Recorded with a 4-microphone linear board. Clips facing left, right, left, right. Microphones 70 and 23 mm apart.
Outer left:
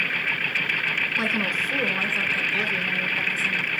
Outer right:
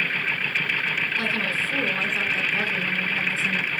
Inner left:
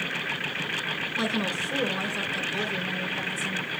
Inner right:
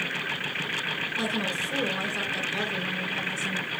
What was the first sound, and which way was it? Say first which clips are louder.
A woman speaking: outer left 1 dB, inner left 2 dB; 20° left (ahead or behind).